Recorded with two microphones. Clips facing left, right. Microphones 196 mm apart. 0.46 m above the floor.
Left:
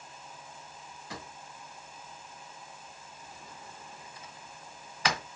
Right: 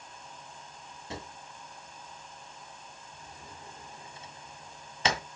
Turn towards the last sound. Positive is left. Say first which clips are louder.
# right 3 dB
turn(degrees=-25)  # may be behind; listen again after turning